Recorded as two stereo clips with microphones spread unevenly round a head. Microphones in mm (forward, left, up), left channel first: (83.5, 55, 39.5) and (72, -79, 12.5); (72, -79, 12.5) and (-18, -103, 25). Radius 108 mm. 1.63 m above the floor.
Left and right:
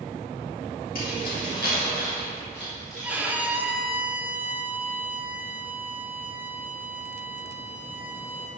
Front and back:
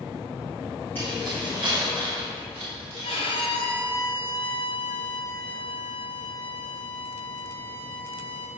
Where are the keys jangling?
100° left, 3 m; by 3.5 s 175° left, 3 m.